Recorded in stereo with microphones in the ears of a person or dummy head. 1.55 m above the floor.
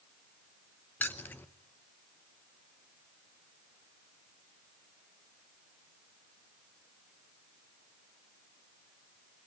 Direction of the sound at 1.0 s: 10° left (ahead or behind).